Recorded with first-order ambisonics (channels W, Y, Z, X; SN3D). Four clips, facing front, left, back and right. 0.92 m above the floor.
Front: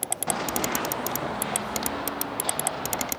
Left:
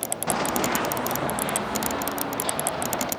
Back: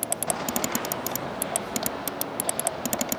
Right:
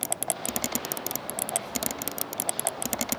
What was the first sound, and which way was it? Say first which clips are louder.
Running footsteps: left 10 dB, front 2 dB; 80° left.